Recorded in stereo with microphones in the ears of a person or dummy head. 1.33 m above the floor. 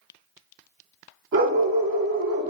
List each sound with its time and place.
1.3 s a dog barking: 55° right (ahead or behind), 1.3 m